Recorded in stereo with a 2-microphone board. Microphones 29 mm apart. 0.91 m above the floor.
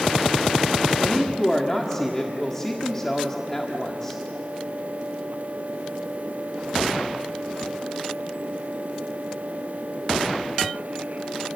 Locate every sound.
1.0 s a woman speaking: 15° left (ahead or behind), 1.5 m